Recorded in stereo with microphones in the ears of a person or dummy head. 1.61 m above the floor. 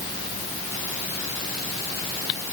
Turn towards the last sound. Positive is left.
No sound to turn to.